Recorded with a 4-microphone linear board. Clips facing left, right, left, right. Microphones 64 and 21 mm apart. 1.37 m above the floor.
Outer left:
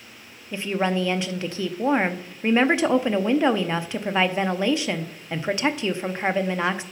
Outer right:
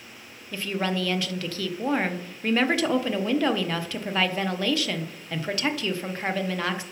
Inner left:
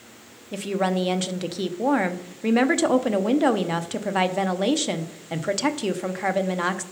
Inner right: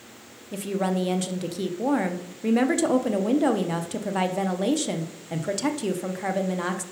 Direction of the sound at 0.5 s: 20° left (ahead or behind).